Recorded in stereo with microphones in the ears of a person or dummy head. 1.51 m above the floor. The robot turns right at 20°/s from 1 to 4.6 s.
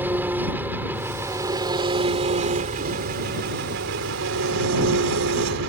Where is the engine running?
170° right; by 5.7 s 100° right.